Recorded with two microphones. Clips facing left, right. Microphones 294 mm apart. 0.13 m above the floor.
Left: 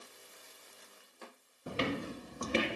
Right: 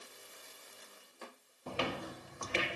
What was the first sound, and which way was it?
Footsteps, 15° left (ahead or behind).